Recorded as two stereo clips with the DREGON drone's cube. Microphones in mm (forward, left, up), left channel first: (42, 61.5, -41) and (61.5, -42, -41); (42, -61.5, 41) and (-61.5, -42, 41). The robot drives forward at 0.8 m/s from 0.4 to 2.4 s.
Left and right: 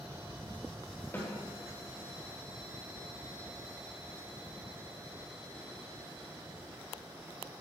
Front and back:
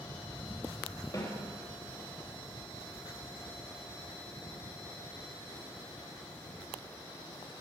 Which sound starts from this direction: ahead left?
A snare drum, at 1.1 s.